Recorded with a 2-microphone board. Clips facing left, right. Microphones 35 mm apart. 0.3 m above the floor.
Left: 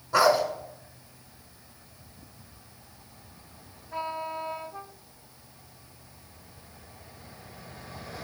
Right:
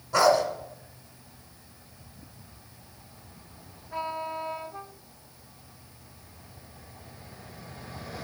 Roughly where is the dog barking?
Centre.